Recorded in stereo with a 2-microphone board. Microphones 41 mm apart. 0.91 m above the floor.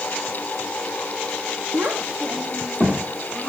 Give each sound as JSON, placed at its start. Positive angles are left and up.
{"t": 1.7, "sound": "a child speaking", "side_deg": -65, "distance_m": 0.9}